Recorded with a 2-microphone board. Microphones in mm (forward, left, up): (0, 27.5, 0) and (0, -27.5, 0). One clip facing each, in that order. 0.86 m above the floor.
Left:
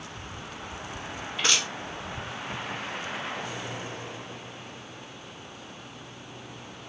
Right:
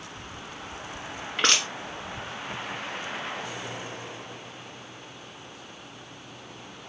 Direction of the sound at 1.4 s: 60° right (ahead or behind).